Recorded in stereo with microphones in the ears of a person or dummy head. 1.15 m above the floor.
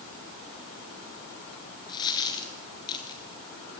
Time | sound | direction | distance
1.9 | a dropped coin | 25° left (ahead or behind) | 1.6 m